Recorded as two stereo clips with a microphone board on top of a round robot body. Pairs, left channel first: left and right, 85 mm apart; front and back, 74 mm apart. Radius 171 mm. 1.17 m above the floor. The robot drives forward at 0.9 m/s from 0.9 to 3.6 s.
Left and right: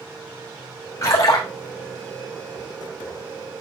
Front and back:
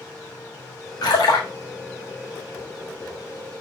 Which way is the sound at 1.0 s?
30° left.